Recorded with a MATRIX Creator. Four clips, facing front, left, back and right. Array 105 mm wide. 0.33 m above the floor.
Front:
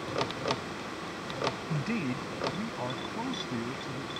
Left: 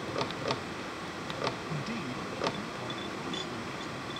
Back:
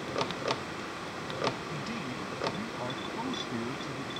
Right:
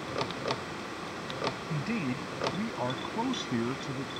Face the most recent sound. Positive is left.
turn(degrees=-95)